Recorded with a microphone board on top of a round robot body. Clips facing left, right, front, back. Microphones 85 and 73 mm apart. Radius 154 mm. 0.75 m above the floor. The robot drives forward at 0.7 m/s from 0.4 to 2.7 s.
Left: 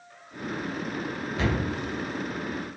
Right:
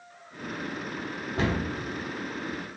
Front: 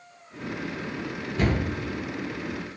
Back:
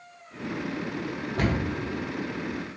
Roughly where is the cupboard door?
Behind right.